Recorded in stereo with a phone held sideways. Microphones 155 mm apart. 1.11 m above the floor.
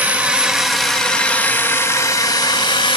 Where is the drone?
10° right (ahead or behind); by 3.0 s 35° left (ahead or behind).